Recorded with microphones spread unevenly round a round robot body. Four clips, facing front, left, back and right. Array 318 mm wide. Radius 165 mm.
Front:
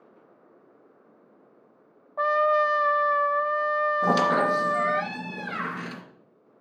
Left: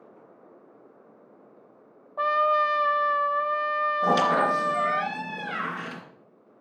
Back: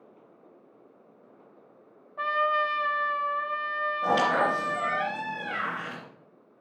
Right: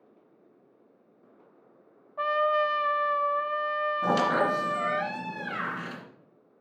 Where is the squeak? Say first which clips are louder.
Left 3 dB, even; 25° right, 2 m.